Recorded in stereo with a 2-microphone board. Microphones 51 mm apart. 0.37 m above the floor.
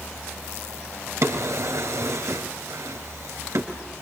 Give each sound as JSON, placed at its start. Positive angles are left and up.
{"t": 1.2, "sound": "a drawer", "side_deg": -70, "distance_m": 3.5}